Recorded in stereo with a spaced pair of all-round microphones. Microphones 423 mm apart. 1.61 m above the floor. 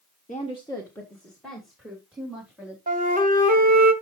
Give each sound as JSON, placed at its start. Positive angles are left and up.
{"t": 0.3, "sound": "a woman speaking", "side_deg": 20, "distance_m": 1.0}
{"t": 2.9, "sound": "a flute", "side_deg": -20, "distance_m": 1.5}